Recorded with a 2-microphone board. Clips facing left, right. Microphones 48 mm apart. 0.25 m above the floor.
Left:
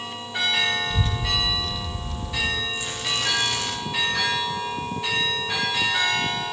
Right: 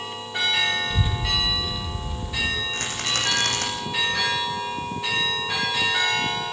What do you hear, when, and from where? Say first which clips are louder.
0.9 s a child speaking: even; 15° right (ahead or behind), 3 m
2.7 s a rattle: right 1 dB; 65° right (ahead or behind), 10 m